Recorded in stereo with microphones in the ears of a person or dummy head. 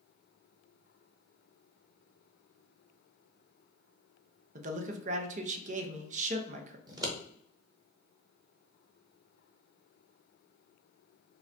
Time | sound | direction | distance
4.5 | a man speaking | 30° right (ahead or behind) | 0.5 m
6.9 | scissors | 20° right (ahead or behind) | 1.0 m